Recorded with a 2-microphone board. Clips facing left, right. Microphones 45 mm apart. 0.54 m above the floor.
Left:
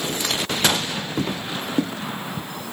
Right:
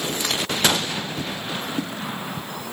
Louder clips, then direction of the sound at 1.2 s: Left 3 dB; 55° left (ahead or behind).